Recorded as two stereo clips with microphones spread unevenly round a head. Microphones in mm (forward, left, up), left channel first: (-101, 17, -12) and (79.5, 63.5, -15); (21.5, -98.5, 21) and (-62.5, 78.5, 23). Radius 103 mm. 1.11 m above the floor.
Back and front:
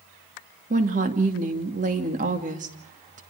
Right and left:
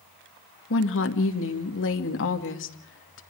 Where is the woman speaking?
40° right, 2.5 m.